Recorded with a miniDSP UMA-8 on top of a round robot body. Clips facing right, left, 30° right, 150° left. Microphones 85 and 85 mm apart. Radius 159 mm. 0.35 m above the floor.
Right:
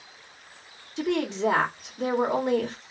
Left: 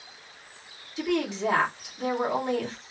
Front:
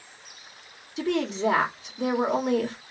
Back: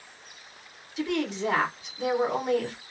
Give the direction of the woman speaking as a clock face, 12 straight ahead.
2 o'clock.